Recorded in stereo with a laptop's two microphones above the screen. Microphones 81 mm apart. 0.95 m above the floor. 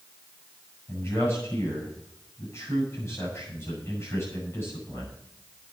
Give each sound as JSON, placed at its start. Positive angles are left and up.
{"t": 0.9, "sound": "a man speaking", "side_deg": 30, "distance_m": 8.0}